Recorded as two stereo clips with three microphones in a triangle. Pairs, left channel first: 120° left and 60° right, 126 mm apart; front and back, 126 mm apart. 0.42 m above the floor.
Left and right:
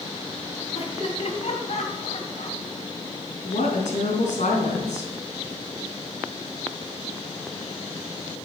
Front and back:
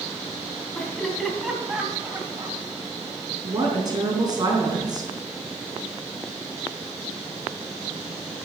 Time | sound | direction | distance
0.8 | laughter | 80° left | 3.5 m
3.4 | a woman speaking | 125° left | 4 m